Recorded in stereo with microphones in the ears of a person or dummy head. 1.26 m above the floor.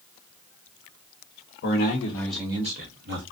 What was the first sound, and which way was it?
A man speaking, 55° left (ahead or behind).